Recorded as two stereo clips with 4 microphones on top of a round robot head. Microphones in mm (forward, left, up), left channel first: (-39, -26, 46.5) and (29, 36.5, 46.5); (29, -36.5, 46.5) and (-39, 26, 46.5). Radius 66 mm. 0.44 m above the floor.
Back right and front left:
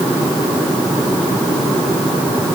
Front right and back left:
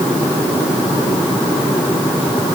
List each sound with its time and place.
Only background noise.